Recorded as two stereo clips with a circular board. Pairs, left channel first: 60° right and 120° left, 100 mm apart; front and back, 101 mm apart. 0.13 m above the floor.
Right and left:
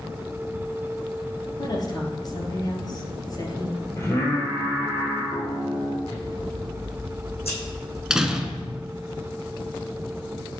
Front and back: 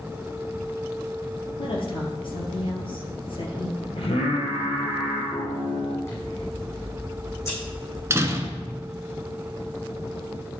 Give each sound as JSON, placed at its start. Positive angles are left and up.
{"t": 1.6, "sound": "a woman speaking", "azimuth_deg": -15, "distance_m": 2.5}
{"t": 4.0, "sound": "singing", "azimuth_deg": 0, "distance_m": 2.0}
{"t": 6.0, "sound": "scissors", "azimuth_deg": -60, "distance_m": 4.5}
{"t": 8.1, "sound": "a door slam", "azimuth_deg": -160, "distance_m": 0.9}